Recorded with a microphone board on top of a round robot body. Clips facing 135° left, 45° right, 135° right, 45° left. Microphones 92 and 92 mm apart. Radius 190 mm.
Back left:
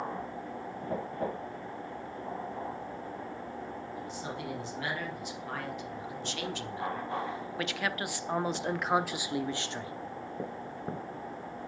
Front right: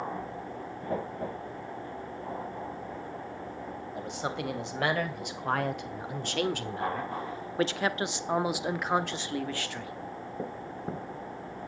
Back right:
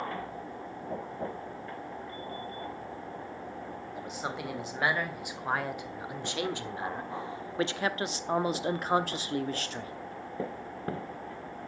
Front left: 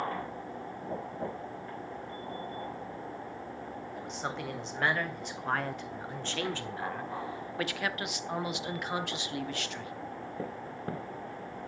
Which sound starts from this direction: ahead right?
A man speaking, at 4.0 s.